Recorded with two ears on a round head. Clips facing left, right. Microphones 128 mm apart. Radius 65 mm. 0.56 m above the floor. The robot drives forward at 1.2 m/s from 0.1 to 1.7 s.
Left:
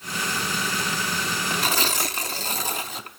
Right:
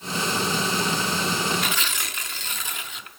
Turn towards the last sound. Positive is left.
turn(degrees=30)  # may be behind; listen again after turning